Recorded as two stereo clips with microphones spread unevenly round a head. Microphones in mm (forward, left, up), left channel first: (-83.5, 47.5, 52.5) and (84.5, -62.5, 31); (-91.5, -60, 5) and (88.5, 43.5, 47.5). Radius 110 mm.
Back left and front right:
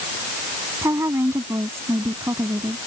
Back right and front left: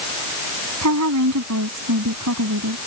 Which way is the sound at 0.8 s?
45° left.